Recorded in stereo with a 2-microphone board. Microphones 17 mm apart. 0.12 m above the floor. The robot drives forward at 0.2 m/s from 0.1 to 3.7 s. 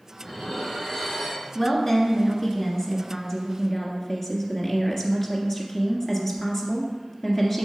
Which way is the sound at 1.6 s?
20° left (ahead or behind).